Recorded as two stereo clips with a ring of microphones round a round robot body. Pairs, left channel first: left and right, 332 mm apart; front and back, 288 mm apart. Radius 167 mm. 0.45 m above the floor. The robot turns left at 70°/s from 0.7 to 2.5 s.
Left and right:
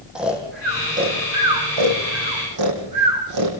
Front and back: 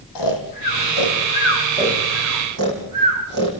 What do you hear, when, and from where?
0.1 s snoring: 5° right, 4.5 m; by 3.5 s 130° right, 4.5 m